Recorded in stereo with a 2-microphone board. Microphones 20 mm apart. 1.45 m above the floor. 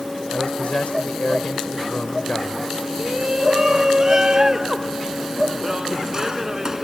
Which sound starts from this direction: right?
A shout, at 3.0 s.